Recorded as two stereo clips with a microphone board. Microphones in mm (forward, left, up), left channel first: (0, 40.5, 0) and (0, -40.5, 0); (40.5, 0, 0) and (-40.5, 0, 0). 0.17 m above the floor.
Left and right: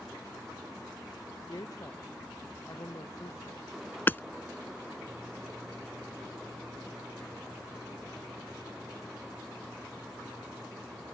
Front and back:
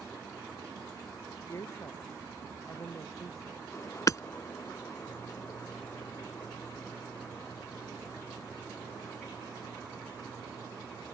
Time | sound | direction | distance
1.5 | a woman speaking | 50° left | ?
4.1 | hammering | 35° left | ?